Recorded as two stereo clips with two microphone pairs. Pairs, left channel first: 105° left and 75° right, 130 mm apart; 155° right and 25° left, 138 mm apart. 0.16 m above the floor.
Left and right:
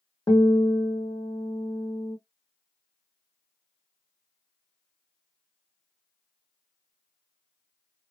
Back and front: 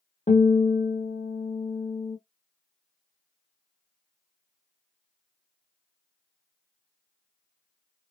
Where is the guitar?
170° left, 1.0 m.